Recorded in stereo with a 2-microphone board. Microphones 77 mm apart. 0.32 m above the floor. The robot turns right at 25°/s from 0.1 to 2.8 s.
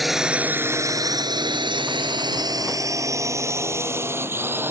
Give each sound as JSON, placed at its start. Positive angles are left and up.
{"t": 0.0, "sound": "a drone", "side_deg": 0}